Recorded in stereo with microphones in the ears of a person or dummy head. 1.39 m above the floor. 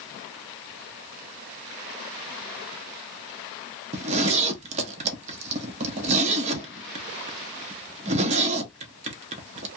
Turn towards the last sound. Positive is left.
turn(degrees=-30)  # may be behind; listen again after turning